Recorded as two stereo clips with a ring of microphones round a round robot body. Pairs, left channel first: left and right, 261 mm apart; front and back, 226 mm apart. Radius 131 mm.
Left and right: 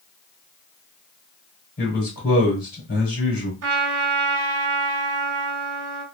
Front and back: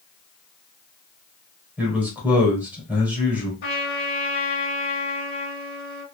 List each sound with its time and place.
1.8 s a man speaking: 100° left, 1.7 m
3.6 s a trumpet: 55° right, 1.3 m